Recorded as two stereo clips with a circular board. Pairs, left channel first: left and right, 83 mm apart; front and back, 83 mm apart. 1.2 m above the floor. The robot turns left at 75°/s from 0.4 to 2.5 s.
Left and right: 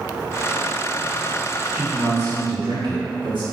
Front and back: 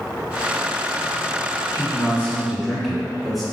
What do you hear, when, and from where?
1.7 s a man speaking: 30° right, 2.0 m; by 3.4 s 90° right, 2.0 m